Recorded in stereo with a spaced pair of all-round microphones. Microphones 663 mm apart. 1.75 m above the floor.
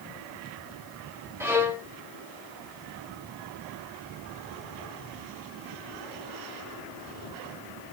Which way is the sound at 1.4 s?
5° right (ahead or behind).